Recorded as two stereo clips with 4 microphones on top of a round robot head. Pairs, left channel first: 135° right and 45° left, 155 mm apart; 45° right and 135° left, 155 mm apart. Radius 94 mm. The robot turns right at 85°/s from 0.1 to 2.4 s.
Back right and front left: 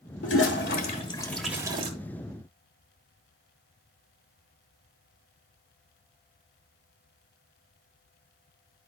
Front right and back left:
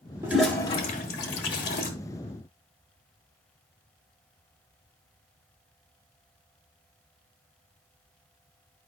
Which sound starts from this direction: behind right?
A toilet flushing, at 0.2 s.